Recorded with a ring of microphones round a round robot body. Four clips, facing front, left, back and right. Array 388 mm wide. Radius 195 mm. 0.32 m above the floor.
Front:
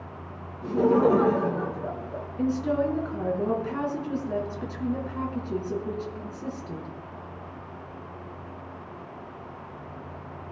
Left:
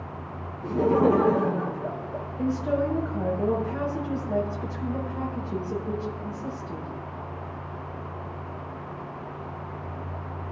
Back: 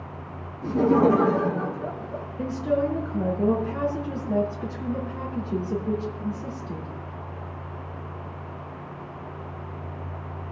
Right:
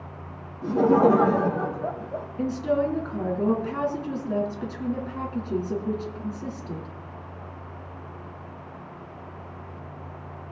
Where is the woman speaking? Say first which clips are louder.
Right 1 dB, even; 60° right, 4 m.